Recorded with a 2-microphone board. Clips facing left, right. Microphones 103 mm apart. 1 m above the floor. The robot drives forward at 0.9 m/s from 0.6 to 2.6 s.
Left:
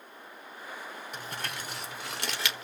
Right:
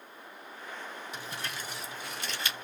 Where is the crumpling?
50° left (ahead or behind), 2 m; by 2.6 s 85° left, 1.6 m.